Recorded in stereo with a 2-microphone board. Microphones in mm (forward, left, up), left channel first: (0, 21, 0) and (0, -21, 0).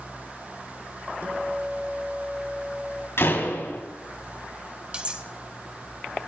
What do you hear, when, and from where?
1.2 s a guitar: 80° right, 5 m
3.2 s a door slam: 75° left (ahead or behind), 4.5 m
4.9 s cutlery clinking: 25° right (ahead or behind), 1.8 m